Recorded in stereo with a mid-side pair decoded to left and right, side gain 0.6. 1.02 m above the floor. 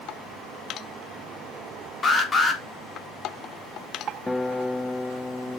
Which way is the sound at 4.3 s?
10° left.